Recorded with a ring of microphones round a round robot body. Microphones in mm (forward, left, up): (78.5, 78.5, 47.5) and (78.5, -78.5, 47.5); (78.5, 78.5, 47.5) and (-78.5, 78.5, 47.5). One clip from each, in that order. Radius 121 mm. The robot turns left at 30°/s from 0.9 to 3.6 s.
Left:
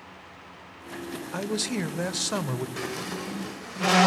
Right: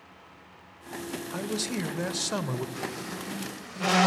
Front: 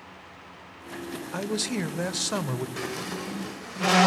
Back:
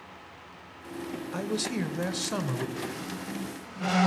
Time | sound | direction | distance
1.3 | a man speaking | 30° left | 1.1 m
2.8 | a squeak | 35° left | 0.5 m